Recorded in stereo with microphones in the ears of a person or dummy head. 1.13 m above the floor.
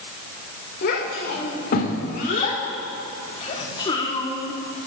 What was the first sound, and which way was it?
A child speaking, 55° left (ahead or behind).